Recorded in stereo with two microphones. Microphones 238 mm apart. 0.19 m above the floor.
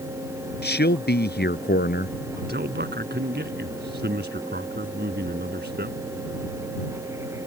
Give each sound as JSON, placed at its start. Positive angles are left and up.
{"t": 0.6, "sound": "a man speaking", "side_deg": 45}
{"t": 2.4, "sound": "a man speaking", "side_deg": -45}